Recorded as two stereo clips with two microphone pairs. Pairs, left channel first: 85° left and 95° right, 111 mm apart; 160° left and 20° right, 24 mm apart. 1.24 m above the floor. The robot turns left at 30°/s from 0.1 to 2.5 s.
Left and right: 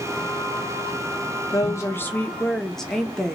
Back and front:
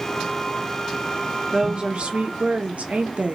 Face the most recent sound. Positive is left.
turn(degrees=0)